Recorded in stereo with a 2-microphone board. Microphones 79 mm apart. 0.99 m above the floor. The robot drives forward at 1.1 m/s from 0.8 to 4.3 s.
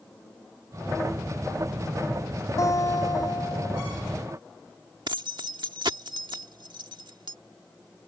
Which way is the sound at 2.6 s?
50° left (ahead or behind).